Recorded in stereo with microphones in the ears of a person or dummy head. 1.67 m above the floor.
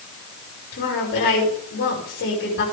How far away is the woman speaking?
About 8 m.